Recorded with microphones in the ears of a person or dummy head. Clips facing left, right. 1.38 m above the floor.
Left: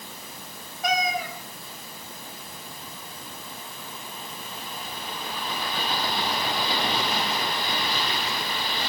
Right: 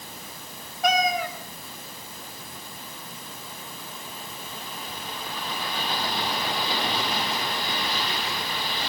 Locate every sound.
0.8 s a cat meowing: 50° right (ahead or behind), 2.5 m